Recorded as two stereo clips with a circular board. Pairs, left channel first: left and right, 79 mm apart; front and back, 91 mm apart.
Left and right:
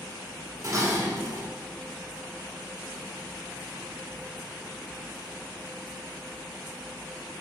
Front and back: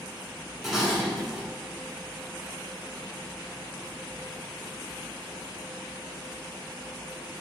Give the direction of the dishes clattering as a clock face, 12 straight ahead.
3 o'clock.